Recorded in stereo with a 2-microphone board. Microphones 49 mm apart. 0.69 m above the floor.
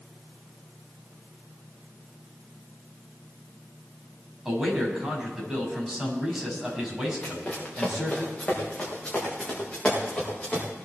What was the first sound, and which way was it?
A man speaking, 10° right (ahead or behind).